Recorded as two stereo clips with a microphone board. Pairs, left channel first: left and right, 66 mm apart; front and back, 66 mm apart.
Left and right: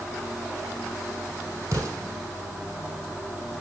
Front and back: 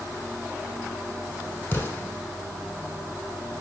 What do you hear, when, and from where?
1.7 s an explosion: 50° right, 2 m